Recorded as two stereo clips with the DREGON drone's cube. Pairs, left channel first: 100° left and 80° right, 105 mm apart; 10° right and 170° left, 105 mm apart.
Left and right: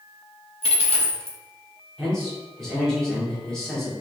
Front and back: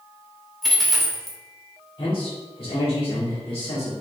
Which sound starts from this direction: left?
A dropped coin, at 0.6 s.